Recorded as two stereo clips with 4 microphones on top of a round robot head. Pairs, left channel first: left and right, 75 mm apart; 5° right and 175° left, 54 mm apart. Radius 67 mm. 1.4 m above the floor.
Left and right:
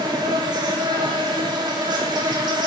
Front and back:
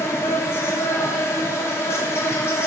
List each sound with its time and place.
0.0 s an insect: 55° right, 0.7 m